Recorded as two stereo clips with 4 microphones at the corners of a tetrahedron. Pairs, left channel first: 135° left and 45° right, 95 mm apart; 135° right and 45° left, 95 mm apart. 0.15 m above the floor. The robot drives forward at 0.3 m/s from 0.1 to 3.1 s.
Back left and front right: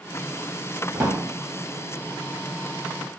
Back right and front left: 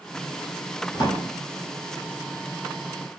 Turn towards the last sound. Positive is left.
turn(degrees=-135)